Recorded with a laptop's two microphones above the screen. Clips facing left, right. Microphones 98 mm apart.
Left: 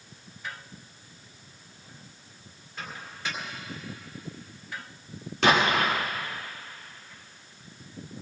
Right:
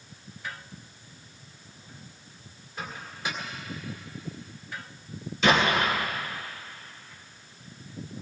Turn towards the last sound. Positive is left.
turn(degrees=70)  # may be behind; listen again after turning